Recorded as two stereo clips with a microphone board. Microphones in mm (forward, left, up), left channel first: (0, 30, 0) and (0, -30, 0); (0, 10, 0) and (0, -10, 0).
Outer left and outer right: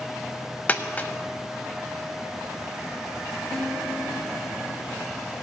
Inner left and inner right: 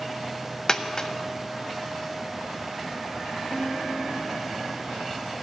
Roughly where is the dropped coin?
Left.